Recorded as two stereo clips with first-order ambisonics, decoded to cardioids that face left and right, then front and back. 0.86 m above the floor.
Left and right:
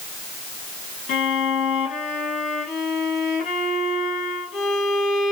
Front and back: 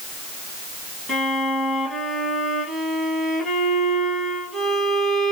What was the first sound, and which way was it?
A violin, 70° left.